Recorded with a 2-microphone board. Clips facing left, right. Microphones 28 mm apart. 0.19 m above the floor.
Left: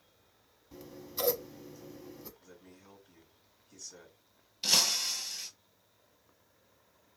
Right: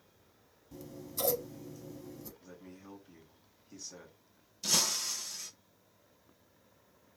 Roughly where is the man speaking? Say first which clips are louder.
Right 4 dB; right.